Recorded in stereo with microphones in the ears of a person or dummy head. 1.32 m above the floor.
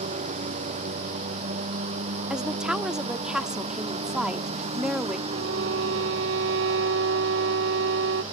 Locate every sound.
0.0 s a lawn mower: 40° right (ahead or behind); by 8.3 s 25° right (ahead or behind)
2.3 s a woman speaking: 5° right (ahead or behind)
5.3 s a violin: 60° right (ahead or behind)